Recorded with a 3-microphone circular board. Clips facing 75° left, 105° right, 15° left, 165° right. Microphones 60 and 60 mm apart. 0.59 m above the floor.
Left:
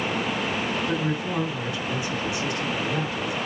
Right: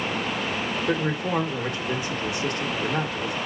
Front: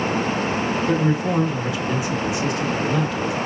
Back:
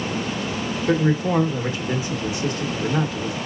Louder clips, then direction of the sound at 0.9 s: Right 2 dB, back 3 dB; 125° right.